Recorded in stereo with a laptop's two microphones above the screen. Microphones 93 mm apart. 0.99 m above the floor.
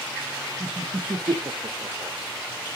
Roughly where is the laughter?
Right.